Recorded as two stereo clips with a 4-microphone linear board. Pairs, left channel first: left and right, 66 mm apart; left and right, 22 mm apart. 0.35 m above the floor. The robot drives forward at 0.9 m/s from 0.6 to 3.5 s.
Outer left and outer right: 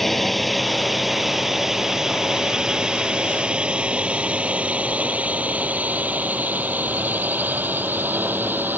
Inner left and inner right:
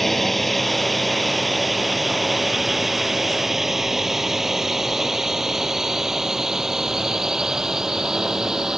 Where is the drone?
Centre (ahead or behind); by 8.8 s 30° right (ahead or behind).